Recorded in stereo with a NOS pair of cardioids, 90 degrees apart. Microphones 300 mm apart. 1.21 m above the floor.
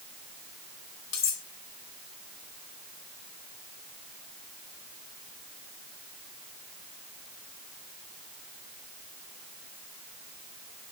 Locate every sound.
1.1 s cutlery clinking: 65° left, 2.5 m